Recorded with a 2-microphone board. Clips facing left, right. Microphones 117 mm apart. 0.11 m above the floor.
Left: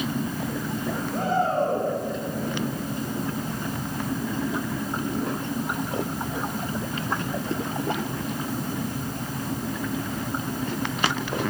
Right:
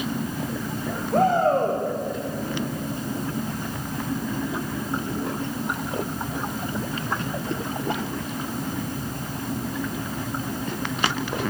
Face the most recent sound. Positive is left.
turn(degrees=-50)  # may be behind; listen again after turning